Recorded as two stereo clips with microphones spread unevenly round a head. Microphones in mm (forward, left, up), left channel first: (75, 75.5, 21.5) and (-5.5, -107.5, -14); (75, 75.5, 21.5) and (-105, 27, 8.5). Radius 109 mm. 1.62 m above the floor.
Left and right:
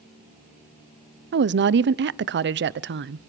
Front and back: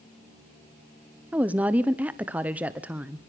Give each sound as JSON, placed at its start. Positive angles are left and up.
{"t": 1.3, "sound": "a woman speaking", "azimuth_deg": -80, "distance_m": 0.9}